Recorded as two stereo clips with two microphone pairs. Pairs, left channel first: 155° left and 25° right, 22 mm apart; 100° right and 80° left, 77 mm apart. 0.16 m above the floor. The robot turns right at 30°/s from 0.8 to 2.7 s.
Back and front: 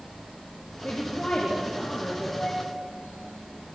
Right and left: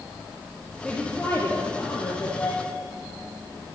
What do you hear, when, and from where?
0.8 s a woman speaking: 175° right, 4 m; by 2.3 s 130° right, 4 m
2.4 s a flute: 175° right, 4 m; by 2.6 s 165° right, 4 m